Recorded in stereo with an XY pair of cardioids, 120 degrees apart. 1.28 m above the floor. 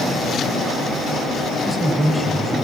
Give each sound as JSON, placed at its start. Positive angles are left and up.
{"t": 1.6, "sound": "a man speaking", "azimuth_deg": 0, "distance_m": 8.0}